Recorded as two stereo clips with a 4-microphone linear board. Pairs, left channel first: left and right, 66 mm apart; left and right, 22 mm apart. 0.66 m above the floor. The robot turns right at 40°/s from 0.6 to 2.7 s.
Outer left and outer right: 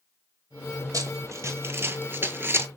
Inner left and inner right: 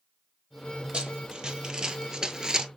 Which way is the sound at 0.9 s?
60° right (ahead or behind).